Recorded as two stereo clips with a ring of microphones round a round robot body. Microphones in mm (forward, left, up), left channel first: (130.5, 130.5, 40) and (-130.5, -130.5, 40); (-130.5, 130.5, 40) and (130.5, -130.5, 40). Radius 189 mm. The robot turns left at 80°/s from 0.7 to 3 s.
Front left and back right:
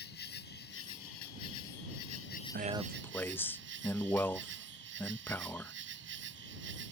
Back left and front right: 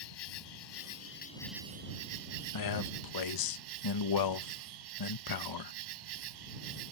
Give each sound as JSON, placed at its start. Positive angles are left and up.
{"t": 0.0, "sound": "an insect", "azimuth_deg": 110}
{"t": 2.5, "sound": "a man speaking", "azimuth_deg": 165}